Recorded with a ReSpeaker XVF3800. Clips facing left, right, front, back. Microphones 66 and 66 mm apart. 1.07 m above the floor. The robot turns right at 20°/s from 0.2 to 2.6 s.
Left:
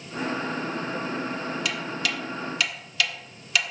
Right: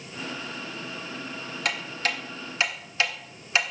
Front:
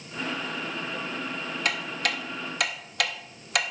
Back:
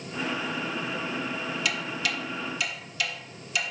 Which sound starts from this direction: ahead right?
Ticking, at 1.6 s.